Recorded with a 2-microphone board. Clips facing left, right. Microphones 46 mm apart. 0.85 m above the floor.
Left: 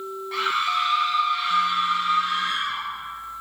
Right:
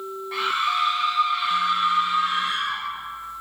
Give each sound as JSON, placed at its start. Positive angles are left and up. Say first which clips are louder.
{"t": 0.3, "sound": "a scream", "louder": "even", "side_deg": -5, "distance_m": 7.0}